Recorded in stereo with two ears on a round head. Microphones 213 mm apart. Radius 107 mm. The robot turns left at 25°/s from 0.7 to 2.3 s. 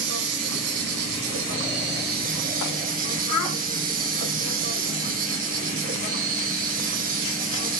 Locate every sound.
0.0 s an insect: 100° right, 2 m; by 7.8 s 140° right, 2 m
3.3 s a child speaking: 90° left, 4.5 m